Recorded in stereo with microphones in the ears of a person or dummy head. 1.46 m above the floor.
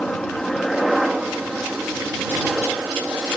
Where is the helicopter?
5° left (ahead or behind); by 3.4 s 5° right (ahead or behind).